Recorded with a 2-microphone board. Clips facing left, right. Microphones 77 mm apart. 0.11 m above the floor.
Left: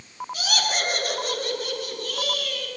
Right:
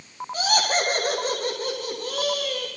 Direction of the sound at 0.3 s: 40° right (ahead or behind).